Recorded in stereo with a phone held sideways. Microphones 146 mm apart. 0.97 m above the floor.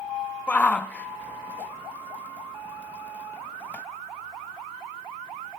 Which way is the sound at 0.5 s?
10° left (ahead or behind).